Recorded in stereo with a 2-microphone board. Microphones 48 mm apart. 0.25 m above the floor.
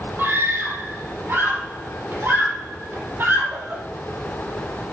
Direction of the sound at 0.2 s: 40° right (ahead or behind).